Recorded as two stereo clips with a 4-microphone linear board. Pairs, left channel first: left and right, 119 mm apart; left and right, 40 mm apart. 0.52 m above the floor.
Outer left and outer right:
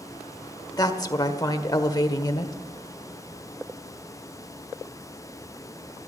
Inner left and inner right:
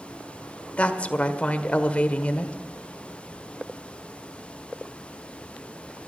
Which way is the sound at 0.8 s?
35° left (ahead or behind).